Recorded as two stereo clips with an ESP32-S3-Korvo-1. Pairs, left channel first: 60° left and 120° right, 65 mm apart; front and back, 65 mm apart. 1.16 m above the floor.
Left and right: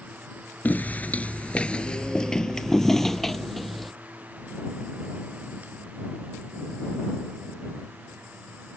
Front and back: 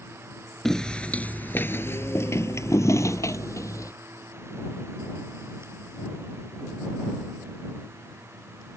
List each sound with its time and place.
0.7 s footsteps: 75° left; by 3.9 s 30° right